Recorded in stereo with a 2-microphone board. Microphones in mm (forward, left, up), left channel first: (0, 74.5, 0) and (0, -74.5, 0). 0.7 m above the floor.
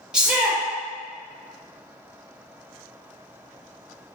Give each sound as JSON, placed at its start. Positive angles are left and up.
{"t": 0.1, "sound": "a shout", "side_deg": -5, "distance_m": 0.6}